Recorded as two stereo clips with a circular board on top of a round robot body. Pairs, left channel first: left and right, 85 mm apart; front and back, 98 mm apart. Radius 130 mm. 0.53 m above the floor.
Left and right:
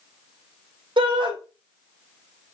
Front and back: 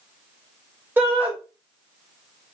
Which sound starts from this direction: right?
A shout, at 1.0 s.